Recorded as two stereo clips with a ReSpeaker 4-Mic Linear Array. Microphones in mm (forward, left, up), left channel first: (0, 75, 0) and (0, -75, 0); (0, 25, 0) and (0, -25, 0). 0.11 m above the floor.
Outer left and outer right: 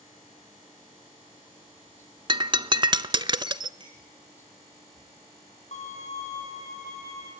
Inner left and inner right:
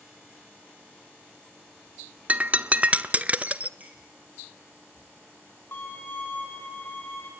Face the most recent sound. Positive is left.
turn(degrees=50)  # may be behind; listen again after turning